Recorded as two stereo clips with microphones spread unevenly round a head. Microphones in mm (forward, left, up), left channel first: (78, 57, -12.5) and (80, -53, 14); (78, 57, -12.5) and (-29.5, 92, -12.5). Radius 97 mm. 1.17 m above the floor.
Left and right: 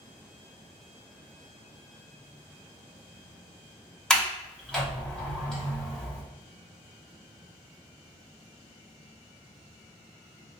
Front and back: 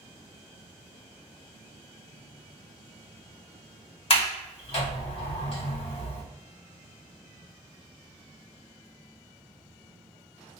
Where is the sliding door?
Straight ahead, 1.8 m.